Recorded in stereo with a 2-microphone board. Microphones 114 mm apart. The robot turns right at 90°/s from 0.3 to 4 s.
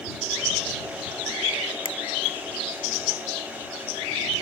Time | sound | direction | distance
1.9 | a finger snap | 45° left (ahead or behind) | ?